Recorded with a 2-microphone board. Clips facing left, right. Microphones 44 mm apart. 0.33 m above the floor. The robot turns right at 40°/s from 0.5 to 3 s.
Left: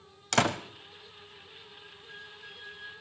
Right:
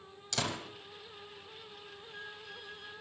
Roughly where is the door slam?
Left.